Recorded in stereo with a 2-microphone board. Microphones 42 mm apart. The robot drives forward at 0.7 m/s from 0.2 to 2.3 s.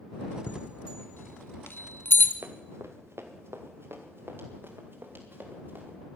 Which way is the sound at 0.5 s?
45° left (ahead or behind).